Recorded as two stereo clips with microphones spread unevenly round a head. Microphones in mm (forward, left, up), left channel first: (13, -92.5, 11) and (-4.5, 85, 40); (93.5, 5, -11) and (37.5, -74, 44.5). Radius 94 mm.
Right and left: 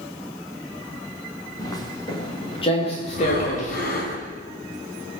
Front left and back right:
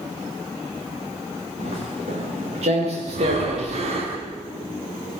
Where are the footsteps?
155° right, 8.5 m; by 3.9 s 135° right, 7 m.